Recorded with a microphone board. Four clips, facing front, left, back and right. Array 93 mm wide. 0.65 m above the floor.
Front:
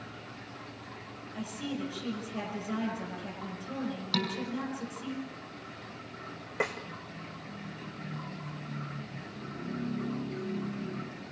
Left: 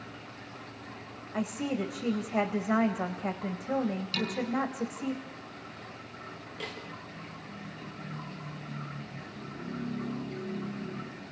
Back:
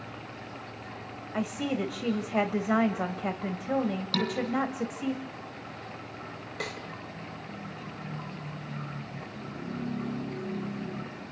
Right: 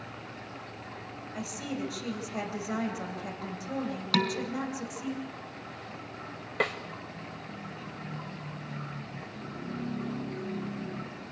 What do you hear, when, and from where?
1.3 s a woman speaking: 150° left, 3.5 m
4.1 s dishes clattering: 90° right, 4.5 m
6.6 s a snare drum: 60° right, 2.0 m